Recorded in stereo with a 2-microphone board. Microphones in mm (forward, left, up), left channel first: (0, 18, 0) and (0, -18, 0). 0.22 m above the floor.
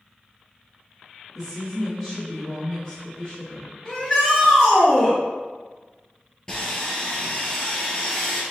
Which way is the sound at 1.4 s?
5° right (ahead or behind).